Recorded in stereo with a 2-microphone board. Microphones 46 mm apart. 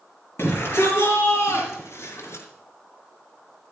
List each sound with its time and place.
0.4 s a shout: 55° left (ahead or behind), 5 m; by 2.5 s 75° left (ahead or behind), 3 m